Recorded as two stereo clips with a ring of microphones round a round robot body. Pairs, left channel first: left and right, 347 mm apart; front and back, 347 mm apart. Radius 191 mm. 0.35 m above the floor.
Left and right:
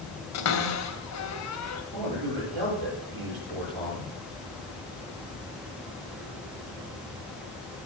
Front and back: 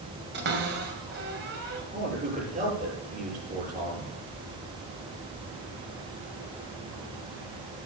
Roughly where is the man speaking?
Right.